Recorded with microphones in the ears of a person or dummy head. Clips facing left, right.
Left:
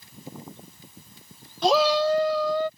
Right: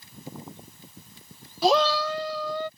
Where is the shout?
5° right (ahead or behind); by 2.7 s 75° left (ahead or behind).